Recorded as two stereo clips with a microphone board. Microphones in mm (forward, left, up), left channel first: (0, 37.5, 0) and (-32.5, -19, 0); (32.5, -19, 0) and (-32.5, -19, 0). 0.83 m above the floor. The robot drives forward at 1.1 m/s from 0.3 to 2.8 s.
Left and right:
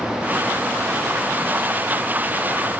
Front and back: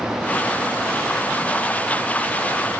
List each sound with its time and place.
Only background noise.